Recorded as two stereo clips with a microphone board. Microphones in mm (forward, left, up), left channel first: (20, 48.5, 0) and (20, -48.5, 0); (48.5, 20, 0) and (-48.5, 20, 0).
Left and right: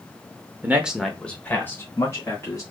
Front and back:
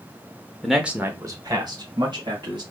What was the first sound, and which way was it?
A man speaking, 80° right.